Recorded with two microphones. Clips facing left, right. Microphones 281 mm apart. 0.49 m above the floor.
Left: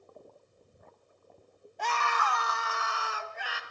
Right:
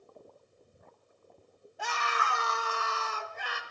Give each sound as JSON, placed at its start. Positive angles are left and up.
{"t": 1.8, "sound": "a scream", "side_deg": -10, "distance_m": 1.2}